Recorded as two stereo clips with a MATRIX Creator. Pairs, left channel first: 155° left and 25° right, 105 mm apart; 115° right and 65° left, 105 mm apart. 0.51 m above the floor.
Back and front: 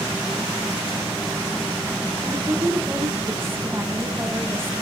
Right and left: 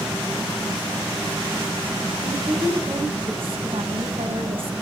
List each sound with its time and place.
2.2 s a woman speaking: 45° left, 3.5 m